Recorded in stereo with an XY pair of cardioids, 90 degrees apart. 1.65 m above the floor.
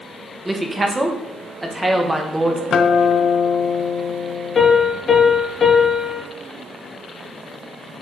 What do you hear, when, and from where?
0.5 s a woman speaking: 15° right, 1.9 m
2.7 s a guitar: 60° left, 1.2 m
4.5 s a piano: 50° left, 4 m